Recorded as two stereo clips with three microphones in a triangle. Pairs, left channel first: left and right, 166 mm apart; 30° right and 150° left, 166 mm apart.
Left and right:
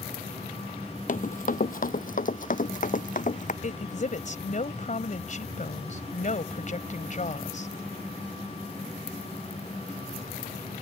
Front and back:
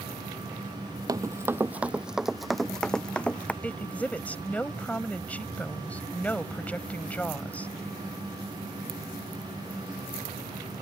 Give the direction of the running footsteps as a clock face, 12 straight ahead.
9 o'clock.